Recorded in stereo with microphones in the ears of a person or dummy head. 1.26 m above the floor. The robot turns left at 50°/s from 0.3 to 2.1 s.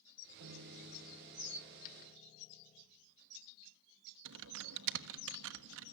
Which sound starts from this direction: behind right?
A piano, at 0.4 s.